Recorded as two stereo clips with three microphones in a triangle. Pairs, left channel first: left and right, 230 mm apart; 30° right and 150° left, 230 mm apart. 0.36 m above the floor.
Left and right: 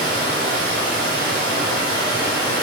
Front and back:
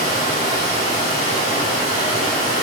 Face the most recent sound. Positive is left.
turn(degrees=-75)